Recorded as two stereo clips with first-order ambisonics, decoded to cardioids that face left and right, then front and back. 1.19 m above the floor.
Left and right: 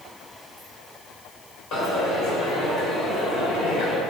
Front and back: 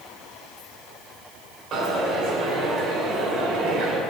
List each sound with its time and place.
1.7 s a dropped coin: 125° left, 1.9 m